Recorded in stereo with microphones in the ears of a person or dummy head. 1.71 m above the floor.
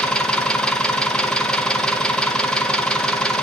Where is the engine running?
10° left (ahead or behind), 0.7 m.